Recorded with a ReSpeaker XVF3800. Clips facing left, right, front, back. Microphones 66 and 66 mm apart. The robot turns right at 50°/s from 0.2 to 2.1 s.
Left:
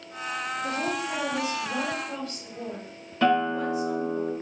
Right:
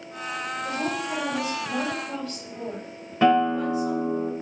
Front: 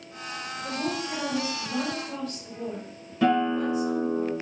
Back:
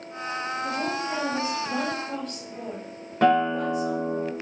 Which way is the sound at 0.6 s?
130° left.